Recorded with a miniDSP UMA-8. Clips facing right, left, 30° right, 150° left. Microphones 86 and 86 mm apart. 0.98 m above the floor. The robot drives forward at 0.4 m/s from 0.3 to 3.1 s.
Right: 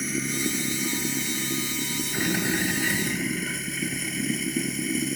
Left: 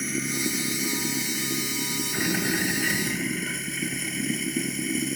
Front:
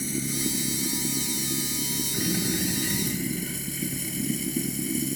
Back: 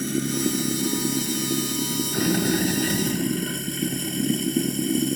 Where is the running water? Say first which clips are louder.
Right 1 dB, back 6 dB; straight behind.